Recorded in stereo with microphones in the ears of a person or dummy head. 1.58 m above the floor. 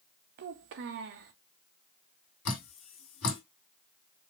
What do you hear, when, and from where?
0.4 s a child speaking: 50° right (ahead or behind), 0.5 m
2.5 s dripping: 60° left (ahead or behind), 2.5 m